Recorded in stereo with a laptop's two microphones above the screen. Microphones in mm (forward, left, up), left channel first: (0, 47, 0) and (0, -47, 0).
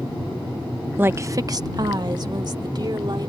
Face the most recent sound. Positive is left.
turn(degrees=-50)  # may be behind; listen again after turning